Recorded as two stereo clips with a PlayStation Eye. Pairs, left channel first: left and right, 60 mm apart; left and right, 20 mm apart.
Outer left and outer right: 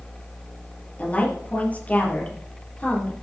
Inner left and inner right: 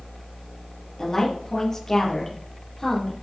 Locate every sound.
1.0 s a woman speaking: 25° left (ahead or behind), 4.5 m